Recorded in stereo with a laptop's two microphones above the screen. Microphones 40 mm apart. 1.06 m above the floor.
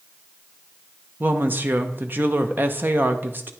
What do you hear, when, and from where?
1.2 s a woman speaking: 50° right (ahead or behind), 0.8 m